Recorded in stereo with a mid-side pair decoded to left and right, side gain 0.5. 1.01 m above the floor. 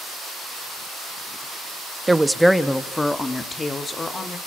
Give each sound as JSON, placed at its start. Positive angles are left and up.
{"t": 2.1, "sound": "a woman speaking", "azimuth_deg": -15, "distance_m": 1.0}